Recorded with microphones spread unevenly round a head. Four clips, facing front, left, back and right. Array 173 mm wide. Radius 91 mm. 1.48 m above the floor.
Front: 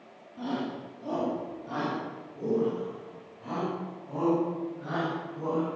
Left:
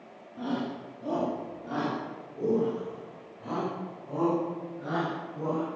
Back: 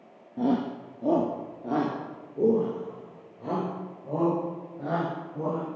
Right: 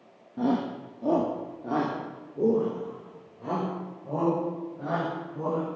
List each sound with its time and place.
0.4 s a shout: 145° right, 1.9 m; by 5.7 s 150° right, 9 m